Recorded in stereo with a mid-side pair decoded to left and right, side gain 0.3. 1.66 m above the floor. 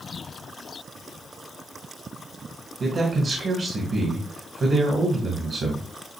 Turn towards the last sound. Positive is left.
turn(degrees=-70)